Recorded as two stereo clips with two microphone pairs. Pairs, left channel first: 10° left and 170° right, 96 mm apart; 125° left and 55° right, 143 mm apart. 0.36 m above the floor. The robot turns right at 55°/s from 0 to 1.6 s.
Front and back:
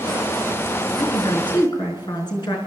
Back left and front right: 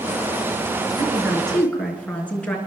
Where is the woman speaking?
10° left, 4.5 m; by 2.6 s 45° left, 4.5 m.